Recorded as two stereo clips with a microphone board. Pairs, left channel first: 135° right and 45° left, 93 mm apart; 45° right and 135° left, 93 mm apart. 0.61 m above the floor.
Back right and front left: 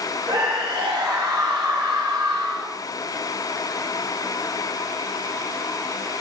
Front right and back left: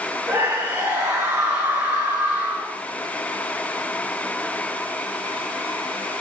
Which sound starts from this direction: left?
A scream, at 0.3 s.